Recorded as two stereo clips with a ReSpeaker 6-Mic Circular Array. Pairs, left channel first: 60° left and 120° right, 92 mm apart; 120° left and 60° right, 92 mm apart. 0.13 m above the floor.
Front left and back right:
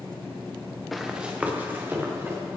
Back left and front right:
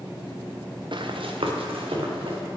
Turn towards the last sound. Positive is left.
turn(degrees=-55)